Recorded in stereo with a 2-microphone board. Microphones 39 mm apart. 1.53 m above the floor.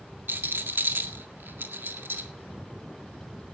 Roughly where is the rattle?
Right.